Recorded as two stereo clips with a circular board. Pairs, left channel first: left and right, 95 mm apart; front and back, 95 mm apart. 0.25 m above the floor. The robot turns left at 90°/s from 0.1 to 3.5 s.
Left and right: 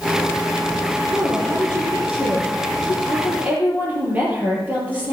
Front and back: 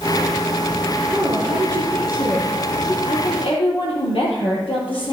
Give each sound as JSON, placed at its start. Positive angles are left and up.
{"t": 1.1, "sound": "a woman speaking", "azimuth_deg": -150, "distance_m": 3.5}
{"t": 3.0, "sound": "a woman speaking", "azimuth_deg": 25, "distance_m": 5.0}